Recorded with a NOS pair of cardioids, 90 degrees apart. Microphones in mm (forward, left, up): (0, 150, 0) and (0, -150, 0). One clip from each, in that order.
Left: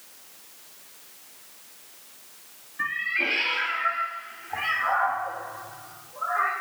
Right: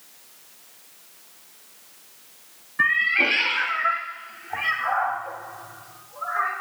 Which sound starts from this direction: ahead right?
A cat meowing, at 2.8 s.